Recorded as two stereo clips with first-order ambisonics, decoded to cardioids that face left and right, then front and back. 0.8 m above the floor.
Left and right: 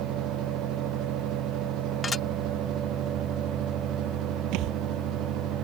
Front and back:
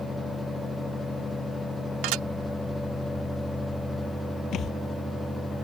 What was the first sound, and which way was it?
Dishes clattering, 165° left.